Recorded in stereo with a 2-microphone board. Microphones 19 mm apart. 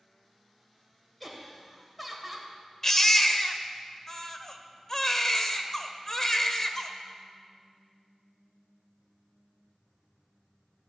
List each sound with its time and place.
1.2 s laughter: centre (ahead or behind), 3 m
2.8 s a baby crying: 20° left (ahead or behind), 1.1 m